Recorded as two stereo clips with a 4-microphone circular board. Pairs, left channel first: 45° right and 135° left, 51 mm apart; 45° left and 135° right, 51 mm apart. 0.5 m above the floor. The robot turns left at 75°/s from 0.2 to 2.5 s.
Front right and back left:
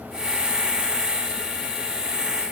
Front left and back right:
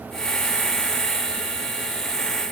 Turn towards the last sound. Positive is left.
No sound to turn to.